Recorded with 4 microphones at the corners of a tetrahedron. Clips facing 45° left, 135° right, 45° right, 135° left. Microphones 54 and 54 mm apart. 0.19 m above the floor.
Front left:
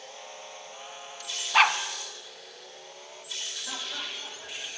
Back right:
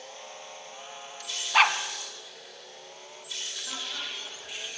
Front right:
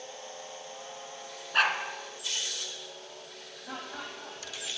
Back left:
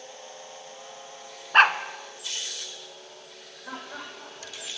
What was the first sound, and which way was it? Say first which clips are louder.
A dog barking: even, back left 8 dB; 135° left.